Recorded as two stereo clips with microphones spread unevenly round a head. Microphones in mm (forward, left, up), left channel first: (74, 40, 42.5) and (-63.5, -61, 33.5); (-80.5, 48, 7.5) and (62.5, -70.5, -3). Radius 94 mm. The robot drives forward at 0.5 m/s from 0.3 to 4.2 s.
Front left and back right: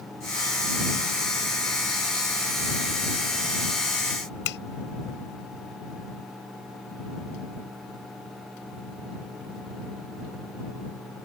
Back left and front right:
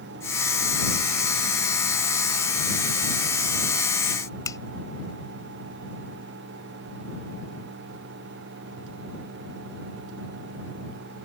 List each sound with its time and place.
4.5 s a finger snap: 65° left